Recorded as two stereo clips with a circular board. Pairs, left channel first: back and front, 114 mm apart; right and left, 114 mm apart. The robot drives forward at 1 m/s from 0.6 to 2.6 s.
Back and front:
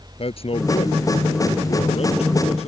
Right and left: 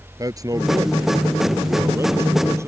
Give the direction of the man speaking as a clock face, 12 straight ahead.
7 o'clock.